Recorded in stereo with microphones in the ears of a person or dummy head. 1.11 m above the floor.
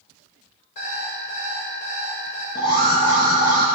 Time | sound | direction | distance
0.8 | an alarm clock | 50° left (ahead or behind) | 3 m
2.5 | an alarm | 25° left (ahead or behind) | 1.6 m